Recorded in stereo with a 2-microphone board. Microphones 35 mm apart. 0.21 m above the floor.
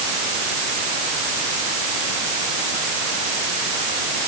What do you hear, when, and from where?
Only background noise.